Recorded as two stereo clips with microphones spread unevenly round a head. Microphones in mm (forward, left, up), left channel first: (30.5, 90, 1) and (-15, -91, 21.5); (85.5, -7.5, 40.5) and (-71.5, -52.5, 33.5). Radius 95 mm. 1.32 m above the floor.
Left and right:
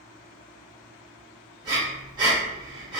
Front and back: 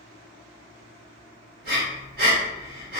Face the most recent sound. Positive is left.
turn(degrees=-160)